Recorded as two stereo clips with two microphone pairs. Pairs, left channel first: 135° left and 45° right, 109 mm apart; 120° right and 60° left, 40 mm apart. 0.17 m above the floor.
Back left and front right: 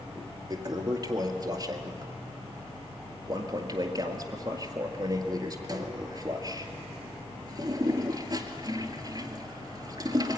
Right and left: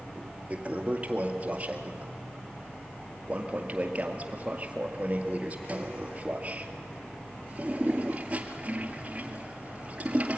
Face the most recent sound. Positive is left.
turn(degrees=5)